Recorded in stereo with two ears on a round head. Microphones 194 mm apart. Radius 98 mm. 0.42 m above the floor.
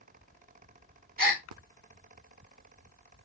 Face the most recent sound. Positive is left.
turn(degrees=-40)  # may be behind; listen again after turning